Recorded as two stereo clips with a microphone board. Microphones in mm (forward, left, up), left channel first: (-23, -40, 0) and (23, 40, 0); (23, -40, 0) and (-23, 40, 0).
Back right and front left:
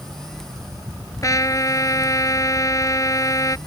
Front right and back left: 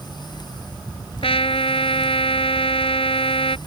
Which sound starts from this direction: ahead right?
A trumpet, at 1.2 s.